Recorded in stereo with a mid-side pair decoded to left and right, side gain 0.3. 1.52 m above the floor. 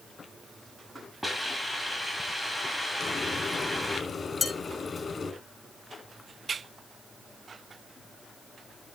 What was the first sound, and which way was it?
A hiss, 5° right.